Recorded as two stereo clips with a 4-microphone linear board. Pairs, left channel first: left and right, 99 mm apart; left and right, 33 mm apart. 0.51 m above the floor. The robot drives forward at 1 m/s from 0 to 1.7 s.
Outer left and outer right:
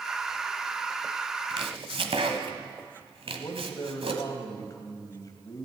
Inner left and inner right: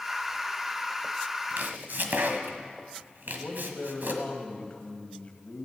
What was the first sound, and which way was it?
Chopping, 65° right (ahead or behind).